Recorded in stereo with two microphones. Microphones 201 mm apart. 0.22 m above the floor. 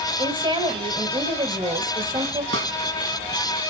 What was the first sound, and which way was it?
A woman speaking, 25° right (ahead or behind).